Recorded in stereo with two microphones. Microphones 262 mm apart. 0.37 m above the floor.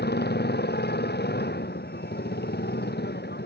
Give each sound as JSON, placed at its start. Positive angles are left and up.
{"t": 0.0, "sound": "a motorcycle", "side_deg": 40}